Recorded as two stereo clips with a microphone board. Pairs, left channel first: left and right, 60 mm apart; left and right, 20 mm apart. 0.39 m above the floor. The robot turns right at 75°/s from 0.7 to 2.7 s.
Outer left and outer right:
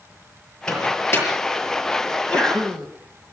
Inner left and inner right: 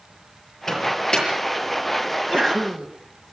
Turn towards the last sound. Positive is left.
turn(degrees=-170)